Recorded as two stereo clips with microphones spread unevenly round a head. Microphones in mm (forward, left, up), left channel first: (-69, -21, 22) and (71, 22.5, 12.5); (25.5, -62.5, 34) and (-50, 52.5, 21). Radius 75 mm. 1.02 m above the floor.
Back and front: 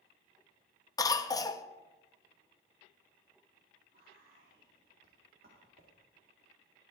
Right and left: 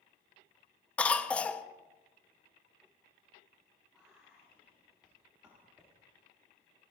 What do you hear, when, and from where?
1.0 s a cough: 140° right, 0.6 m
3.9 s whispering: 40° left, 1.9 m